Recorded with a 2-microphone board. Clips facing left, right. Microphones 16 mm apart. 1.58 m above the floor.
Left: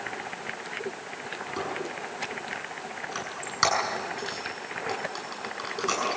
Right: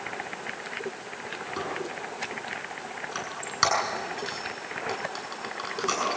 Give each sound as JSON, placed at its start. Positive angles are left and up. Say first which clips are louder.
{"t": 1.6, "sound": "a squeak", "louder": "even", "side_deg": -5, "distance_m": 6.5}